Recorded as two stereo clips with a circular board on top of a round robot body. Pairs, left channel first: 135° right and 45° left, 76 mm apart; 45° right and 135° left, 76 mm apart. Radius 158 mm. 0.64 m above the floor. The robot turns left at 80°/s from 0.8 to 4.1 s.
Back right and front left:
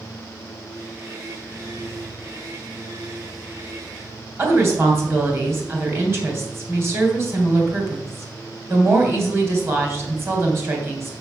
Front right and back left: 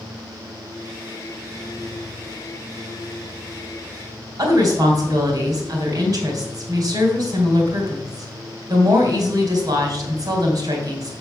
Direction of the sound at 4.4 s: 100° left.